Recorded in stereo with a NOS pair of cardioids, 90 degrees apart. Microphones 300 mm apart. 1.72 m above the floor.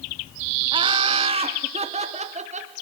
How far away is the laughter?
About 2.5 m.